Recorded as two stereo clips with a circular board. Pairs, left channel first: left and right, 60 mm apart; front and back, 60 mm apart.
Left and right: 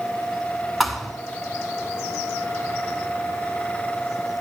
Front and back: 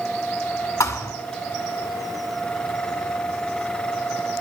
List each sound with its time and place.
0.8 s a thud: straight ahead, 1.1 m